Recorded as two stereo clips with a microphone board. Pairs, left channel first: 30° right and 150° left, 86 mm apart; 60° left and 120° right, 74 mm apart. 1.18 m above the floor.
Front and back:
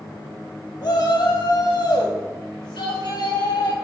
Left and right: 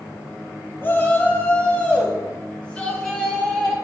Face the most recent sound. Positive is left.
turn(degrees=-20)